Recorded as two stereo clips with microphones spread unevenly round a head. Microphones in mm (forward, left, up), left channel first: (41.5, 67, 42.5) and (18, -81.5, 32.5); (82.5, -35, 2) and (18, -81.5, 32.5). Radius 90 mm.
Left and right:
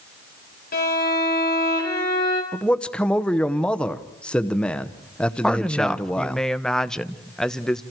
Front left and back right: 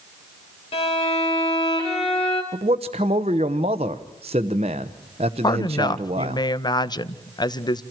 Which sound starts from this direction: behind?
A man speaking, at 2.5 s.